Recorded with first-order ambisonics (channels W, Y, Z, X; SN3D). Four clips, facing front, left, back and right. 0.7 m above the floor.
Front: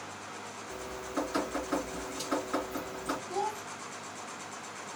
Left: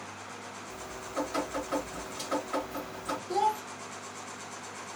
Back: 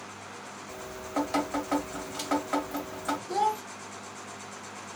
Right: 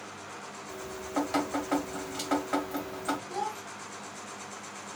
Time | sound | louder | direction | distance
0.7 | dripping | right 5 dB, back 3 dB | 145° right | 1.3 m
3.3 | a child speaking | left 6 dB, back 9 dB | 150° left | 0.6 m